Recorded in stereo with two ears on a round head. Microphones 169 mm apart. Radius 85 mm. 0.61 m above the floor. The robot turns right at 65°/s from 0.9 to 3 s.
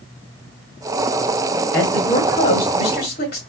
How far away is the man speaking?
About 1.8 m.